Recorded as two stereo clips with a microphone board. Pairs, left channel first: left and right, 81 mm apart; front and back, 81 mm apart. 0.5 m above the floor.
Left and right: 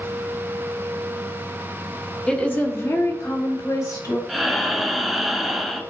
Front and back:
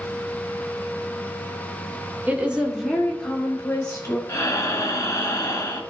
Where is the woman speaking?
150° left, 1.1 m; by 4.2 s 65° left, 2.0 m.